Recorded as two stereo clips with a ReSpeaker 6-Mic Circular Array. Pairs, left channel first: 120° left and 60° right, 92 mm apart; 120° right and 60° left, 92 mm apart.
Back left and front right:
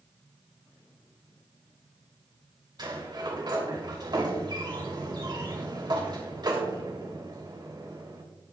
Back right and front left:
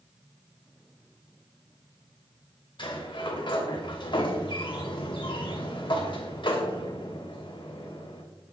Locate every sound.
2.8 s a sliding door: 95° right, 2.5 m